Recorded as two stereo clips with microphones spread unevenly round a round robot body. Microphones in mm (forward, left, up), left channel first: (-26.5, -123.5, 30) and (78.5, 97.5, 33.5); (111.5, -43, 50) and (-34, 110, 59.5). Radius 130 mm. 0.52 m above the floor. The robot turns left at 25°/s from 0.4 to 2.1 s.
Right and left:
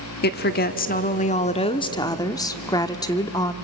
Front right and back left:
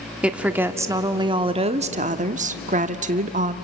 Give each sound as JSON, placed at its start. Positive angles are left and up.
{"t": 0.2, "sound": "a woman speaking", "azimuth_deg": -140, "distance_m": 0.9}